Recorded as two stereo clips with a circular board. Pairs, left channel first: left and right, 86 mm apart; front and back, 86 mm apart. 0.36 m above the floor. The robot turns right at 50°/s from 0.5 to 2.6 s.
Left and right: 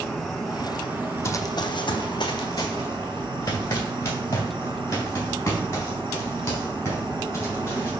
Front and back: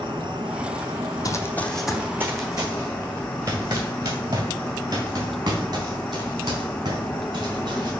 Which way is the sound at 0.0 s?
175° left.